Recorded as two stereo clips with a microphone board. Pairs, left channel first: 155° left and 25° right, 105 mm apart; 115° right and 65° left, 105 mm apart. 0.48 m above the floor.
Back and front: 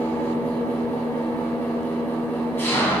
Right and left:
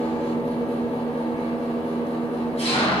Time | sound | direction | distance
0.0 | an engine running | 130° right | 1.8 m